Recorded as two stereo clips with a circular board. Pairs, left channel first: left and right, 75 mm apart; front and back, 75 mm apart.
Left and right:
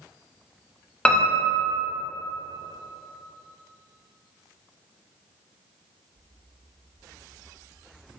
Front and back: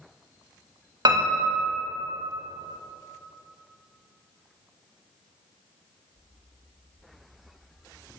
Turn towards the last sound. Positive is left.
turn(degrees=165)